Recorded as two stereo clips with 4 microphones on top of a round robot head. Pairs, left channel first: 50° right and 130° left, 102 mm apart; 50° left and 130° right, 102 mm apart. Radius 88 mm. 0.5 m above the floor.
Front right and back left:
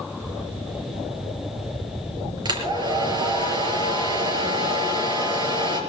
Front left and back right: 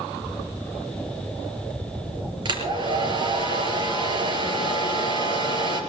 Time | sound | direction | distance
2.5 | a hair dryer | straight behind | 4 m